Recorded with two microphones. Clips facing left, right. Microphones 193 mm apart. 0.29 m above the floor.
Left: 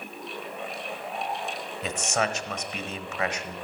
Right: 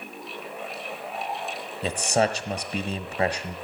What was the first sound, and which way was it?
A man speaking, 35° right (ahead or behind).